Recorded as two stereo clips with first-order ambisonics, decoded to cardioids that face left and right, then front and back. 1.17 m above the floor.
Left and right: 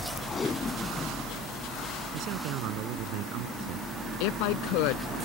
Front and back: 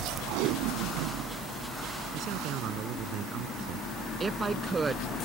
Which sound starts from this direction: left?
A woman speaking, at 4.2 s.